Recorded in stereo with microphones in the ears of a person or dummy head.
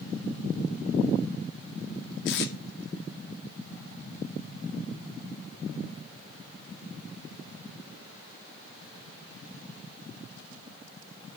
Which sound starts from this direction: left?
Tape being pulled, at 2.2 s.